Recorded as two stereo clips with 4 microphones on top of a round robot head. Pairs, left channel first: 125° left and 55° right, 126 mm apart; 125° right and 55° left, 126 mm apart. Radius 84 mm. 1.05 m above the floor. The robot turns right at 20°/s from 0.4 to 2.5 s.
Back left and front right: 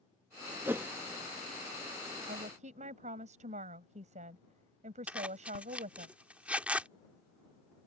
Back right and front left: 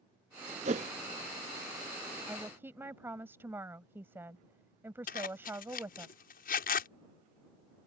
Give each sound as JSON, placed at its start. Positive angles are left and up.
{"t": 0.7, "sound": "a whoosh", "azimuth_deg": 15}
{"t": 2.3, "sound": "a woman speaking", "azimuth_deg": -25}
{"t": 5.1, "sound": "a zipper", "azimuth_deg": -135}